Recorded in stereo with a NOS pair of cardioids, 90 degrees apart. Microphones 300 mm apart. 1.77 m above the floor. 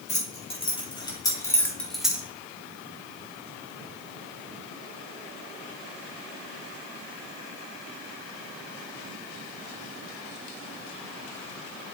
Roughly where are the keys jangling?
Ahead.